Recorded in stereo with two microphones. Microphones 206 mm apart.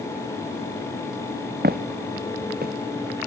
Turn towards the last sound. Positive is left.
turn(degrees=-45)  # may be behind; listen again after turning